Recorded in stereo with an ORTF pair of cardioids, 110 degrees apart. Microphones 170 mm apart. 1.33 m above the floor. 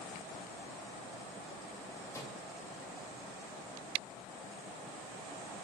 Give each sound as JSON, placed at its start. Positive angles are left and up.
{"t": 2.1, "sound": "a microwave", "azimuth_deg": 20, "distance_m": 2.5}